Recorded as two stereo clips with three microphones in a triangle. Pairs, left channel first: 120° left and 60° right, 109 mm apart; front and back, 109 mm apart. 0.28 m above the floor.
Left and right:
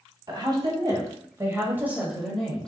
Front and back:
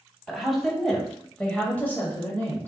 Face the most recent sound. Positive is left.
turn(degrees=45)